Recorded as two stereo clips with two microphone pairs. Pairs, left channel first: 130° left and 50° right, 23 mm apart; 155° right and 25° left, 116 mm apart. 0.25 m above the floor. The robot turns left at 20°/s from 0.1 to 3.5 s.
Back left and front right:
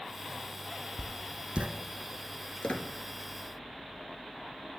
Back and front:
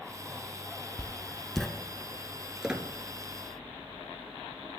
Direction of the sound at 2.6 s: 105° left.